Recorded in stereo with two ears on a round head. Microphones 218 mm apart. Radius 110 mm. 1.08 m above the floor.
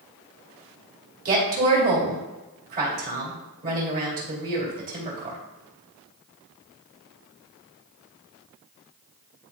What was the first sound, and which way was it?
A woman speaking, 40° right (ahead or behind).